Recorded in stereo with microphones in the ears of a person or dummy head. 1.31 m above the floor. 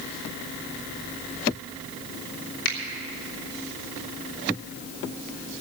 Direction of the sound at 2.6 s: 70° left (ahead or behind).